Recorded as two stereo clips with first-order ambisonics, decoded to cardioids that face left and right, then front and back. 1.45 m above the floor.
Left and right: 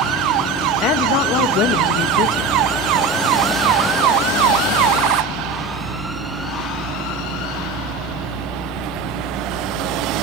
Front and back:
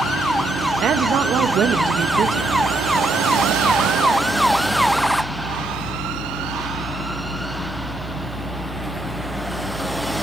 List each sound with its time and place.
0.8 s a woman speaking: 125° left, 1.3 m